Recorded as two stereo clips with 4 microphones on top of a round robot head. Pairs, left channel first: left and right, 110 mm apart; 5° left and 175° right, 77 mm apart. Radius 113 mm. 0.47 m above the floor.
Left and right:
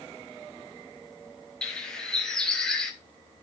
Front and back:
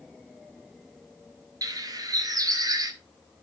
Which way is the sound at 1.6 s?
175° left.